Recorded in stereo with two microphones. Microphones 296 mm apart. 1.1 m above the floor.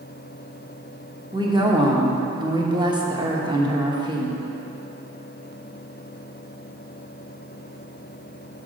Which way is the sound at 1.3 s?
15° right (ahead or behind).